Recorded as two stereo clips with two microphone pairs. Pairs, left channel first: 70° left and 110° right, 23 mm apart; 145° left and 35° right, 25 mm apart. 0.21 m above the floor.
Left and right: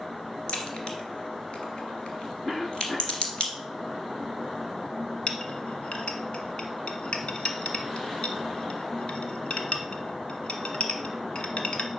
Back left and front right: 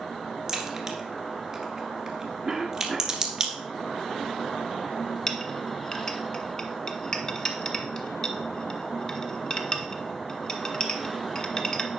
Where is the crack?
40° left, 1.9 m.